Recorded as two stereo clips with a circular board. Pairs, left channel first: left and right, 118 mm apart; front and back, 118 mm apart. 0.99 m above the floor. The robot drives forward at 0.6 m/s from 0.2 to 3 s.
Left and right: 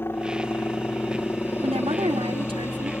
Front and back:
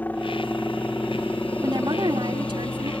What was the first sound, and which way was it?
A helicopter, 50° left.